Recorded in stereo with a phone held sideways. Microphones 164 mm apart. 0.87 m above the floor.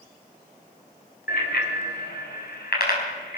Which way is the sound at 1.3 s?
90° left.